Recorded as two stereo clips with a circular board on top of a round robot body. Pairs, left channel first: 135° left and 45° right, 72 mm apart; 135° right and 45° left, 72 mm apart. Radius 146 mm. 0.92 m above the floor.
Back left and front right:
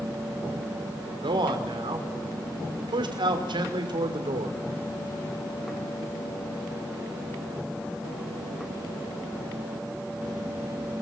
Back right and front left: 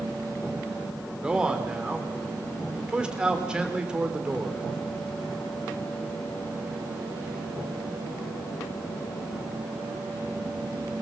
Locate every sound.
1.2 s a man speaking: 35° right, 3 m